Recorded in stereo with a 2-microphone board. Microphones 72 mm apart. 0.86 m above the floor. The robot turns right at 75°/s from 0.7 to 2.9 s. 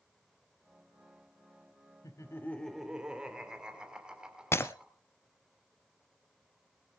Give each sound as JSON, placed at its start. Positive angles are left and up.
{"t": 2.0, "sound": "laughter", "azimuth_deg": 125, "distance_m": 2.5}
{"t": 4.5, "sound": "breaking glass", "side_deg": 35, "distance_m": 0.9}